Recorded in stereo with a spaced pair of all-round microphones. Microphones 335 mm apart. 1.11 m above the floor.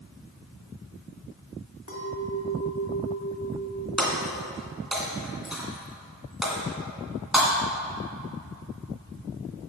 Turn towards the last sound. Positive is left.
turn(degrees=0)  # may be behind; listen again after turning